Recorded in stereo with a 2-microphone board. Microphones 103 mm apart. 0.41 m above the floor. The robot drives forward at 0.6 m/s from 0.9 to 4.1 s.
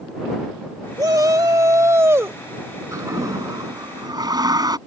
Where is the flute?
No flute in this recording.